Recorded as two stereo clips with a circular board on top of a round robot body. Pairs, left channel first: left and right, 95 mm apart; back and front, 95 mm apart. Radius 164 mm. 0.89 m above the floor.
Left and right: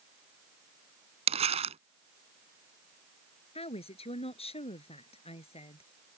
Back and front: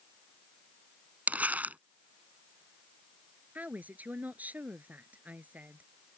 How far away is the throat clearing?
I don't hear throat clearing.